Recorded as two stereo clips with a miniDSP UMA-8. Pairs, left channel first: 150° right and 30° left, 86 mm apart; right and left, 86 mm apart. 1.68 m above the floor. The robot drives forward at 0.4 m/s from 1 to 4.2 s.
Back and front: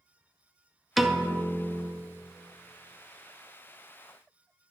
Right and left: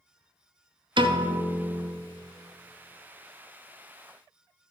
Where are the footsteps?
No footsteps in this recording.